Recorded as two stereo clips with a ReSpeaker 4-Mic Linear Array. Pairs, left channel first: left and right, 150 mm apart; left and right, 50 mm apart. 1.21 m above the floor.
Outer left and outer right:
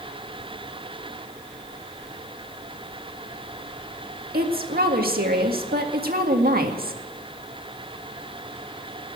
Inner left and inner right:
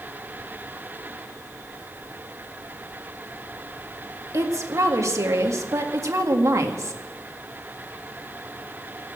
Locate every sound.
4.3 s a woman speaking: 85° right, 1.9 m